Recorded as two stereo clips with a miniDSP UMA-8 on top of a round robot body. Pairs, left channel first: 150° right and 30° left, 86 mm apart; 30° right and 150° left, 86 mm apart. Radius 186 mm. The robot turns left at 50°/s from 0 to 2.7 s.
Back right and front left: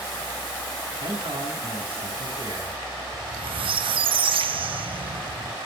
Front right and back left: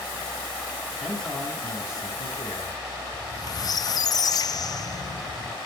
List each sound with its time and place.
1.0 s a man speaking: 65° left, 7.5 m; by 2.8 s 20° right, 7.5 m
3.1 s a squeak: 15° left, 0.7 m